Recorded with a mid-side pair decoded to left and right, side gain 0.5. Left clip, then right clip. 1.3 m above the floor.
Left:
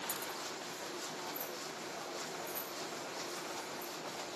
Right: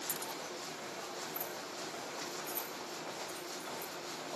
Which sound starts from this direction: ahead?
Keys jangling, at 0.1 s.